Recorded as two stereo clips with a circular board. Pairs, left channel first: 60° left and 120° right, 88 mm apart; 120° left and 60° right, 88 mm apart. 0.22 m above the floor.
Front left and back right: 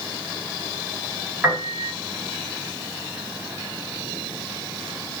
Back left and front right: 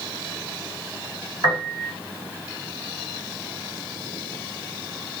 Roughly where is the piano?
Ahead right.